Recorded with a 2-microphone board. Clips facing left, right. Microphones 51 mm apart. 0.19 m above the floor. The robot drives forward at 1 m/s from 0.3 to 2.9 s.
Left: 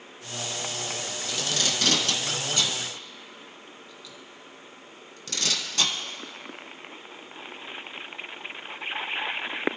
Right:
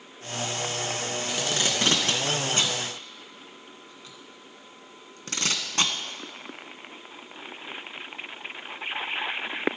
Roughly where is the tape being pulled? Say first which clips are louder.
Even; right.